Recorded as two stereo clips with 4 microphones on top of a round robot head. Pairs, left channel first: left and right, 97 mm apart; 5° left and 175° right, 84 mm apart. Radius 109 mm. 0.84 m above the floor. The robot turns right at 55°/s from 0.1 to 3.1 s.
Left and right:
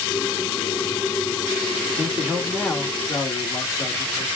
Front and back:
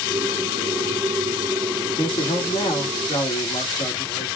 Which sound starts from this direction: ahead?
A man speaking, at 2.0 s.